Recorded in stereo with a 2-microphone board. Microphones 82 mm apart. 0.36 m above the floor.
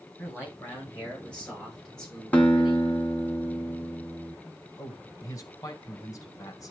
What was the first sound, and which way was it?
A man speaking, 20° left (ahead or behind).